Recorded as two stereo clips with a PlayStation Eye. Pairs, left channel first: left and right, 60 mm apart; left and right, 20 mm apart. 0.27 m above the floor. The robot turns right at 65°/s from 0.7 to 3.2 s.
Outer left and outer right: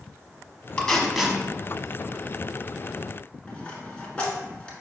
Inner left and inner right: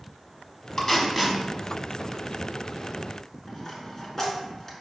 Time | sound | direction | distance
0.8 | tape being pulled | 20° left (ahead or behind) | 0.8 m
3.5 | a dropped coin | 20° left (ahead or behind) | 1.1 m